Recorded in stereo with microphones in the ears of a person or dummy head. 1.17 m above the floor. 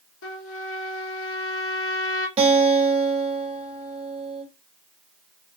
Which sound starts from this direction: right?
A guitar, at 2.4 s.